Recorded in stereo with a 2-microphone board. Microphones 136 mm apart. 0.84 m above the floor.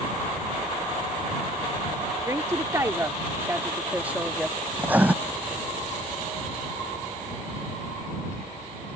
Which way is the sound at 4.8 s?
10° right (ahead or behind).